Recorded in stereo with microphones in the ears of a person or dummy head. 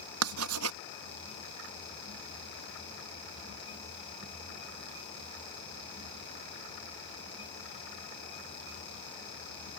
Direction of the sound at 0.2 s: 75° right (ahead or behind).